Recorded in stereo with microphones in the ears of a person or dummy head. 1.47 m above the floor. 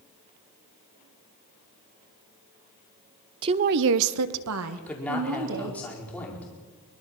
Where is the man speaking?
10° left (ahead or behind), 5 m.